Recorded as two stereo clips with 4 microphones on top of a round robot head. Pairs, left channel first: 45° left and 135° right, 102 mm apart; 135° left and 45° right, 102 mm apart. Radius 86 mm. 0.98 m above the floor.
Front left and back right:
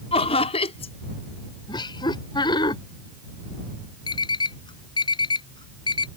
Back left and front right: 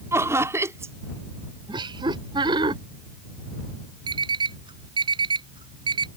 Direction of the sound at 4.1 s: Straight ahead.